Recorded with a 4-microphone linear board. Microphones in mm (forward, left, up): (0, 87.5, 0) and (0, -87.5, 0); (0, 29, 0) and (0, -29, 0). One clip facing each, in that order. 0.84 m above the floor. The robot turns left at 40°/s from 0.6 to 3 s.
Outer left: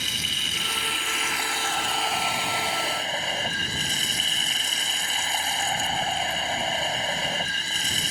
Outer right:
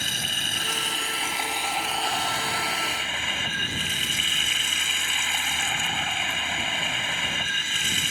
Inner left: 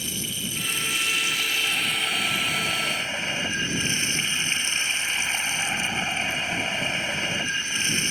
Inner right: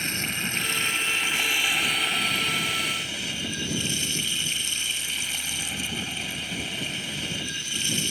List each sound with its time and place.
0.0 s running water: 125° right; by 8.1 s 140° left